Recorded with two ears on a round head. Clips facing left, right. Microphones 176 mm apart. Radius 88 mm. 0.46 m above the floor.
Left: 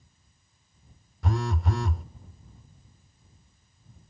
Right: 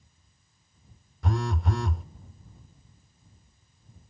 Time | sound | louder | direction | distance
1.2 | a phone buzzing | even | centre (ahead or behind) | ?